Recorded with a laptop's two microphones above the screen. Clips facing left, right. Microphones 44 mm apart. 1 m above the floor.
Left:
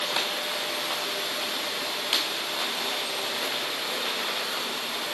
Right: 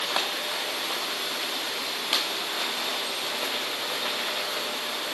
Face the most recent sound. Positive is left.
No sound to turn to.